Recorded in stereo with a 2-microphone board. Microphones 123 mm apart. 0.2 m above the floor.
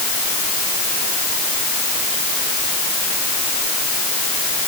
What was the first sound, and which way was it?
Only background noise.